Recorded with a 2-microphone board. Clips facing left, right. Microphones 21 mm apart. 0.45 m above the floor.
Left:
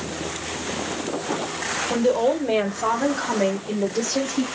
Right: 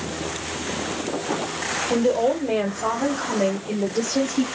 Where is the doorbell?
No doorbell in this recording.